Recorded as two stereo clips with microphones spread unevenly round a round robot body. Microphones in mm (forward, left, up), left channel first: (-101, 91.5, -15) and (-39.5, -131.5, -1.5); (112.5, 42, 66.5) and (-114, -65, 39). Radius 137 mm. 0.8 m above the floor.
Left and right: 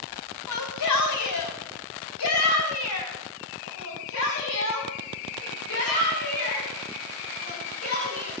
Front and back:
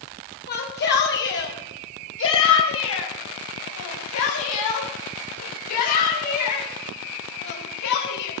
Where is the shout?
80° left, 6 m; by 8.3 s 45° left, 9.5 m.